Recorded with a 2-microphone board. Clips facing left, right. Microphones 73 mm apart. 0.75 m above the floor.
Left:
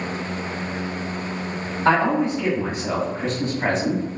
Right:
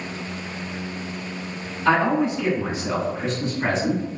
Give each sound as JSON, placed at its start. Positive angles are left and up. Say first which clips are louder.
{"t": 1.9, "sound": "a man speaking", "louder": "left 1 dB", "side_deg": 45, "distance_m": 1.5}